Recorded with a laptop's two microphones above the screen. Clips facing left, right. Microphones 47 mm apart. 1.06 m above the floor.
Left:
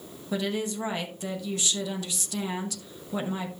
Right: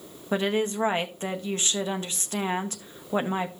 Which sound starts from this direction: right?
A woman speaking, at 0.3 s.